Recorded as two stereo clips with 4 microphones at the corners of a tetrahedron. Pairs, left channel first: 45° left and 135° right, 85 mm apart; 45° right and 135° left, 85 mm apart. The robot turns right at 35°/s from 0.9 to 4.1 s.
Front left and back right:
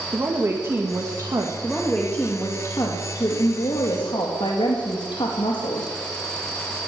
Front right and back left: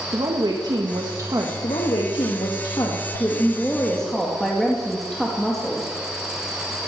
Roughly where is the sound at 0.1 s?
Behind.